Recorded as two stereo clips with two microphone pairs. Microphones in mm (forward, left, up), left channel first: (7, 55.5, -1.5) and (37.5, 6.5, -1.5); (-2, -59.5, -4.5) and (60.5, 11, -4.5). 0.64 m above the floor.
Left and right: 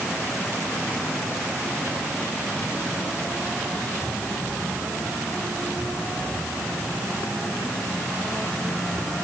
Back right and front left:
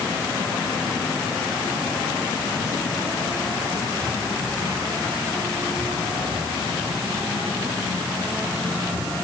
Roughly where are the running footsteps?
I don't hear running footsteps.